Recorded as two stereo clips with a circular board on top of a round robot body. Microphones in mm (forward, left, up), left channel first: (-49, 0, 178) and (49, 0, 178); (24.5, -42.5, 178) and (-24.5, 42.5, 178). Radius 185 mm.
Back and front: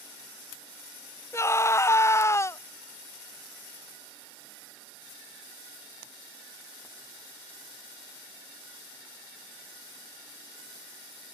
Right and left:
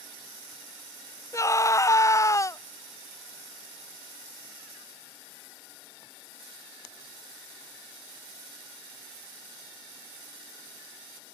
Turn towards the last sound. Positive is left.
turn(degrees=-120)